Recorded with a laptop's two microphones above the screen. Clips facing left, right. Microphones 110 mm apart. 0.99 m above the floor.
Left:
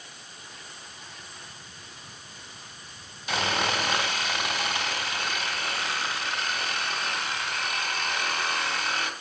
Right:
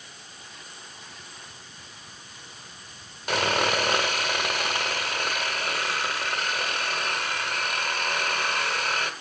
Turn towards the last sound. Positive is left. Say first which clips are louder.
# right 3 dB
turn(degrees=-55)  # may be behind; listen again after turning